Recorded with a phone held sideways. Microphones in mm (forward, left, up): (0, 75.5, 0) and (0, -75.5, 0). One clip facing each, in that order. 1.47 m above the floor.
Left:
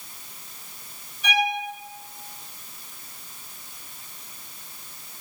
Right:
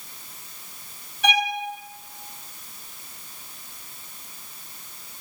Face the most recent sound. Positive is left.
turn(degrees=-70)  # may be behind; listen again after turning